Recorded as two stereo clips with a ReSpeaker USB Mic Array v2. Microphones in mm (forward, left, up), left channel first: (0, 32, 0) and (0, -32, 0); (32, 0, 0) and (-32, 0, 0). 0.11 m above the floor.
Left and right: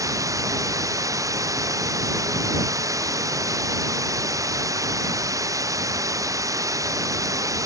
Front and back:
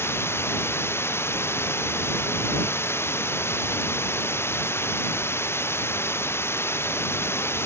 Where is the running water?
55° right.